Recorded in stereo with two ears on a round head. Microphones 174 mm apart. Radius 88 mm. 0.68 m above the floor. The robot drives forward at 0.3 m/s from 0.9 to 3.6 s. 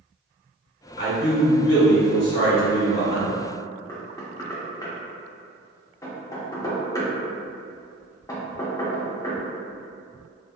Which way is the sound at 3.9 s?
20° left (ahead or behind).